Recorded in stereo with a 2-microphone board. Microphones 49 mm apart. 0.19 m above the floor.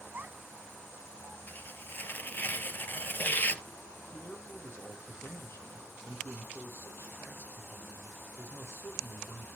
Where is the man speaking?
60° left (ahead or behind), 5.5 m.